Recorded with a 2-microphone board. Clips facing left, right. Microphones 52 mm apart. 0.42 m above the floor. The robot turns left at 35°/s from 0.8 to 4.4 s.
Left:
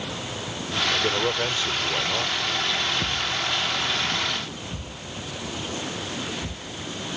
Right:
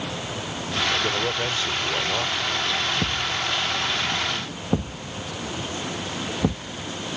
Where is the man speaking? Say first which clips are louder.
Left 2 dB; 35° left; by 2.4 s 20° right.